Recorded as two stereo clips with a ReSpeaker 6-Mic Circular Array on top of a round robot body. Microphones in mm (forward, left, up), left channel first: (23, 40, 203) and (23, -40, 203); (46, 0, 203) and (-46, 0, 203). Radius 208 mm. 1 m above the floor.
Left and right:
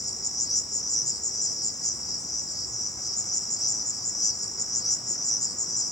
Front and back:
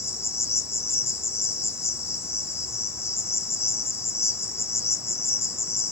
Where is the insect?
60° left, 0.9 m.